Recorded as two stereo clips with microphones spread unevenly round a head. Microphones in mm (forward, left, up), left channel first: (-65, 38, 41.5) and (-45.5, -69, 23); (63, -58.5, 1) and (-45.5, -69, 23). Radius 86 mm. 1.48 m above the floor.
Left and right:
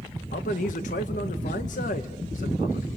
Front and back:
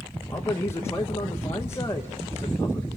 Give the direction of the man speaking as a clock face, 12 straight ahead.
9 o'clock.